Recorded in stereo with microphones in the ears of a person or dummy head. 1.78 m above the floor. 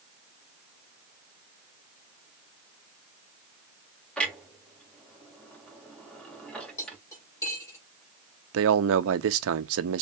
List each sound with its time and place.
4.2 s a clunk: 5° left (ahead or behind), 2.5 m
6.8 s cutlery clinking: 15° left (ahead or behind), 4 m
8.5 s a man speaking: 75° right (ahead or behind), 1.1 m